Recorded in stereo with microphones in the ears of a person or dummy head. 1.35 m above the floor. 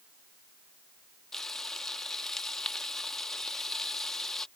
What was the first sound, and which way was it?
Frying, 5° left (ahead or behind).